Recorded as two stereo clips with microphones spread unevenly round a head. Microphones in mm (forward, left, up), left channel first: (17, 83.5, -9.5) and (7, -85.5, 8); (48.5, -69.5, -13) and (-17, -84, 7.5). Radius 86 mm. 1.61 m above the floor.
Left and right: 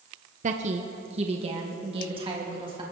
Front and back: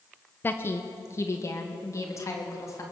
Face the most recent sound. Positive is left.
turn(degrees=-35)